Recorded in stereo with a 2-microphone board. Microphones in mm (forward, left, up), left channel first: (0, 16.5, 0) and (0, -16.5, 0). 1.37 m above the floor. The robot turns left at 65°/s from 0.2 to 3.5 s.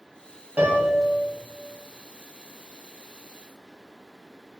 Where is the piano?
65° right, 0.7 m; by 1.0 s 95° right, 0.7 m.